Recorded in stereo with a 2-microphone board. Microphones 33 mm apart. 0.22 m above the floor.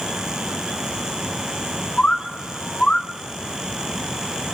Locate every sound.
2.0 s a bird: 35° left (ahead or behind), 1.1 m